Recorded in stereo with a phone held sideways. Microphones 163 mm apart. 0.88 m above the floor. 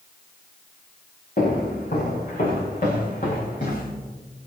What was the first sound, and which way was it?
Footsteps, 55° left (ahead or behind).